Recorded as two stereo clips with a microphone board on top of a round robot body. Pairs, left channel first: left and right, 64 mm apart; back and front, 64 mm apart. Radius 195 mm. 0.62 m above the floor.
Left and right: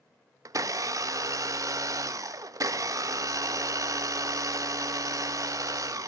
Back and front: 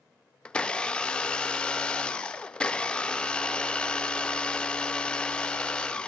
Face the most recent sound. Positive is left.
turn(degrees=-105)